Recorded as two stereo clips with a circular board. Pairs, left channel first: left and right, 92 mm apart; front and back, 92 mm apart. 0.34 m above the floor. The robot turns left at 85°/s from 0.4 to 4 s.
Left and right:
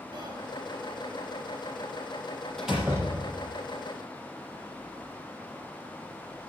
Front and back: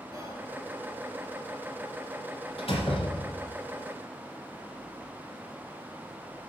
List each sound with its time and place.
0.1 s whispering: 130° right, 7 m; by 0.4 s 135° right, 7 m
2.6 s a door slam: 5° left, 6.5 m; by 3.5 s 75° right, 6.5 m